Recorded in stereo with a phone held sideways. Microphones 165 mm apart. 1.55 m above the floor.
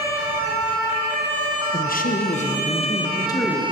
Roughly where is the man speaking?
Left.